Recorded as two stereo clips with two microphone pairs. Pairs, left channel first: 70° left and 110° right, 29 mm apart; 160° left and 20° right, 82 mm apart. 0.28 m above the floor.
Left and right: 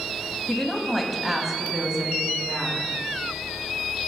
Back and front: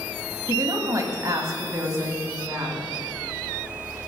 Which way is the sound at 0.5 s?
5° right.